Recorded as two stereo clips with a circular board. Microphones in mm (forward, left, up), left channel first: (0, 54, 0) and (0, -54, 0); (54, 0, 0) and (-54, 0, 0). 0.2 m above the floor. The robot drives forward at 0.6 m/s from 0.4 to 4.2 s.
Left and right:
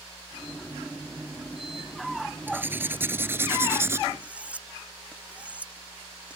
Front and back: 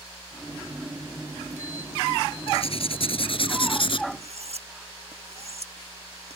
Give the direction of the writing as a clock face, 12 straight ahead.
1 o'clock.